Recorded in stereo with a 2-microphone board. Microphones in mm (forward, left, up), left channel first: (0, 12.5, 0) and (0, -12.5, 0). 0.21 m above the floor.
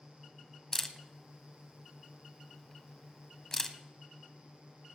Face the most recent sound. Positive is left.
turn(degrees=20)  # may be behind; listen again after turning